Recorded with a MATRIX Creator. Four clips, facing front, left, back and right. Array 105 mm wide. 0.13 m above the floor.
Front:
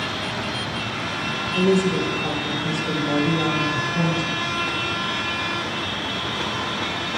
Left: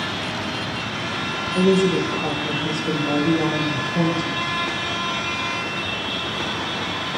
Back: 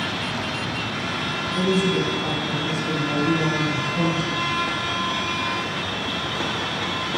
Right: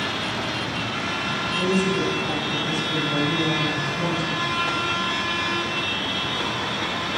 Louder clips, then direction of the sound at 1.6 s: Left 6 dB, front 2 dB; 80° left.